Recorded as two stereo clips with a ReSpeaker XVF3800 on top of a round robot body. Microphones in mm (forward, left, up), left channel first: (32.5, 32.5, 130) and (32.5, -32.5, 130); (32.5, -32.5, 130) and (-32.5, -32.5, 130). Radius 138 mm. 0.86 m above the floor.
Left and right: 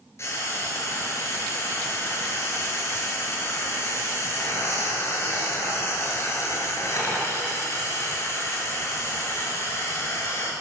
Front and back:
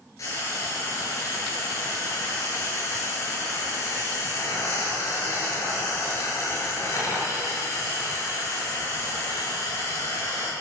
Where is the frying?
45° left, 6 m.